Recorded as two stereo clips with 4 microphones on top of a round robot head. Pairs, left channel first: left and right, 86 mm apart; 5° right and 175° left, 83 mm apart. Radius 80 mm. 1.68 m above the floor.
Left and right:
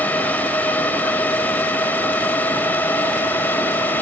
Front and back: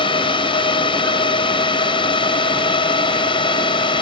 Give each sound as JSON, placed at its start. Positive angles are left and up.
{"t": 0.0, "sound": "a drone", "azimuth_deg": 15}